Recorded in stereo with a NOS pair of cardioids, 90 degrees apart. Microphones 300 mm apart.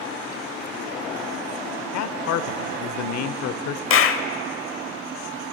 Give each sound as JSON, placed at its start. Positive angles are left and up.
{"t": 1.9, "sound": "a man speaking", "azimuth_deg": 65, "distance_m": 0.5}
{"t": 3.9, "sound": "a clap", "azimuth_deg": 50, "distance_m": 0.5}